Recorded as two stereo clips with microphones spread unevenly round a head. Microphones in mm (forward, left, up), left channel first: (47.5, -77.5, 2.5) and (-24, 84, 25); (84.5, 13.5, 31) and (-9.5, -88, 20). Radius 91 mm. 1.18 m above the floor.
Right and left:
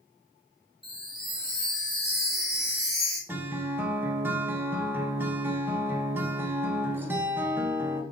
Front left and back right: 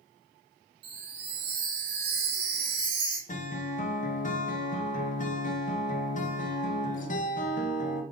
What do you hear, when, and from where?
0.8 s a chime: 160° right, 0.6 m
3.3 s a guitar: 35° left, 0.5 m